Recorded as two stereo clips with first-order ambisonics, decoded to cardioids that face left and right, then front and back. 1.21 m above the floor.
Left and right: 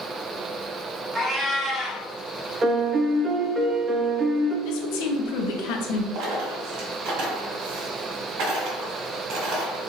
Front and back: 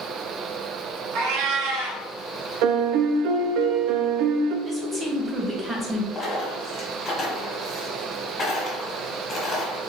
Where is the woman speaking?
100° left, 0.8 m.